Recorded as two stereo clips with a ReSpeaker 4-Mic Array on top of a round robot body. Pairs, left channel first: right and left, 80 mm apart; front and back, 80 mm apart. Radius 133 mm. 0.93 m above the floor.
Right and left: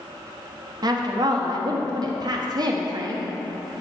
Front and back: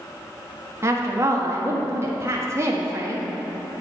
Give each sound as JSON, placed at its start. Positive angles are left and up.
{"t": 0.8, "sound": "a woman speaking", "azimuth_deg": 125, "distance_m": 1.5}